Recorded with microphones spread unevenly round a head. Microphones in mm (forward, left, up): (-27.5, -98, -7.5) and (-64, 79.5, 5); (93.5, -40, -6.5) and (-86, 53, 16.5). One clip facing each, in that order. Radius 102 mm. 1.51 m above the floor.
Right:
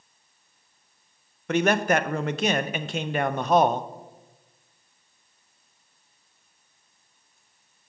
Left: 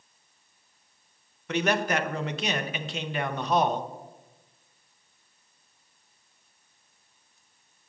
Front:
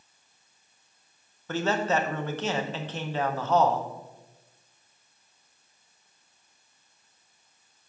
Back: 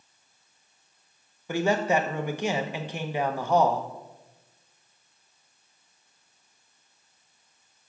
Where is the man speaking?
130° right, 0.5 m.